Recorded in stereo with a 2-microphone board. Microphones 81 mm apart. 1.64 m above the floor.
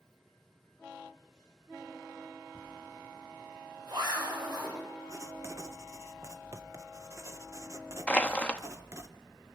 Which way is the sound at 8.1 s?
15° left (ahead or behind).